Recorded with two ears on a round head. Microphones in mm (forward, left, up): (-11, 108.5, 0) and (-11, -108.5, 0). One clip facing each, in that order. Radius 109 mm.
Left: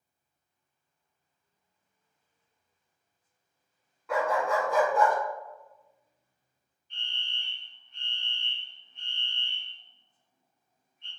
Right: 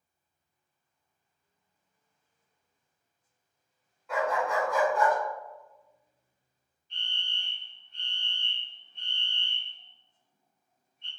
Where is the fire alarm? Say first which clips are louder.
Right 1 dB; 35° right (ahead or behind), 1.8 m.